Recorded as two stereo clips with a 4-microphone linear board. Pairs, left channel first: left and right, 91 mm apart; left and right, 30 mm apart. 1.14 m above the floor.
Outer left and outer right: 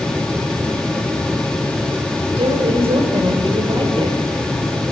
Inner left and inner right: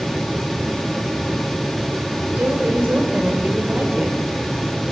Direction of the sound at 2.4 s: 80° right.